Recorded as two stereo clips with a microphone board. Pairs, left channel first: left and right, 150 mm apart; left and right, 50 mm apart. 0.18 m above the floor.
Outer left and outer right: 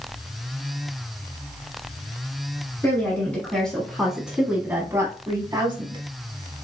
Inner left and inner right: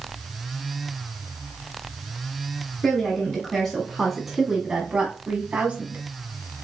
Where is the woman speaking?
15° left (ahead or behind), 1.6 m; by 6.0 s 35° right (ahead or behind), 1.2 m.